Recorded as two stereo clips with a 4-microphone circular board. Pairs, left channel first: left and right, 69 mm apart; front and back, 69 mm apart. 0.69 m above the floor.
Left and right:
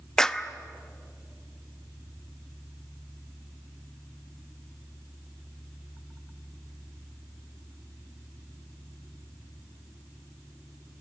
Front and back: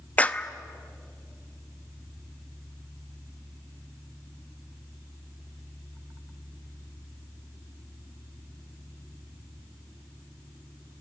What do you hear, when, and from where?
0.2 s a clap: 25° left, 0.7 m